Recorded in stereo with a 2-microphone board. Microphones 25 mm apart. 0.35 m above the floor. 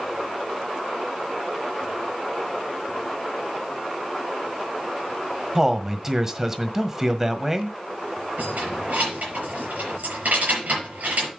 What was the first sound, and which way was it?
A man speaking, 20° right (ahead or behind).